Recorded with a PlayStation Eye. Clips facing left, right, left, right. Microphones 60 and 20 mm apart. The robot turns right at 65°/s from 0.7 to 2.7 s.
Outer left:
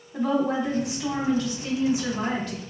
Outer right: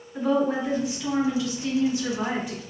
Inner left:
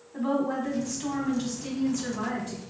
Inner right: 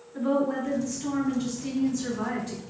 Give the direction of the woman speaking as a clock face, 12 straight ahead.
9 o'clock.